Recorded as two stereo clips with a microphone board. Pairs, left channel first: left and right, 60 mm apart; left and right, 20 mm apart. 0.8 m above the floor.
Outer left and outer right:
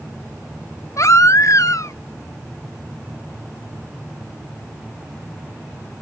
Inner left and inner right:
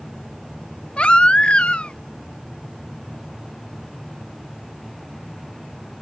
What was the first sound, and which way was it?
A baby crying, 60° left (ahead or behind).